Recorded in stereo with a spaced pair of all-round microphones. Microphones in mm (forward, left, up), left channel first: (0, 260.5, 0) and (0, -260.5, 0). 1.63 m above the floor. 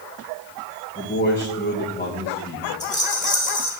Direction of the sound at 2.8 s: Centre (ahead or behind).